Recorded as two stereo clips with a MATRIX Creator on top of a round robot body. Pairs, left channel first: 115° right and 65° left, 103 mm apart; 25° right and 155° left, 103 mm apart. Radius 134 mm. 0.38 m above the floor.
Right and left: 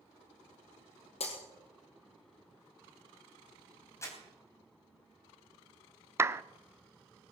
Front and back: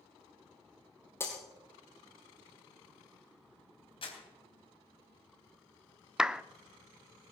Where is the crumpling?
50° right, 3.5 m.